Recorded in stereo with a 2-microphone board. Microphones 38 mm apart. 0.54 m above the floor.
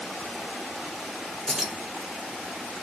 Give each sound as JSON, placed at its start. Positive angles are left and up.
{"t": 1.5, "sound": "keys jangling", "side_deg": -10, "distance_m": 1.1}